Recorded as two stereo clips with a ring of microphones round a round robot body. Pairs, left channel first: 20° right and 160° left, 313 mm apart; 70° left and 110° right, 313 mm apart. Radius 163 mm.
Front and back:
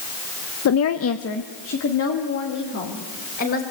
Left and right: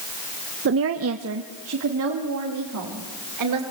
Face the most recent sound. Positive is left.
turn(degrees=-75)